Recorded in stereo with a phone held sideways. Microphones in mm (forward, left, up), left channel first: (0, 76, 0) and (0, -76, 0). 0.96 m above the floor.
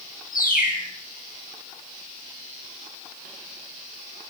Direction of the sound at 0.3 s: 75° left (ahead or behind).